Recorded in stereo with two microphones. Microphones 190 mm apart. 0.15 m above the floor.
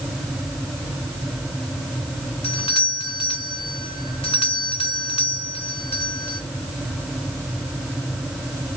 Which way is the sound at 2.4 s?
30° left (ahead or behind).